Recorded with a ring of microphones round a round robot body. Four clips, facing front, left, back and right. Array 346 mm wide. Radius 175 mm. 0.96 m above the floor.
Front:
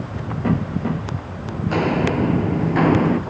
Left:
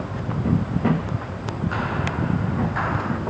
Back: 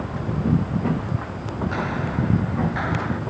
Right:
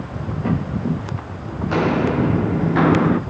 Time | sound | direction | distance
1.7 | footsteps | 55° right | ?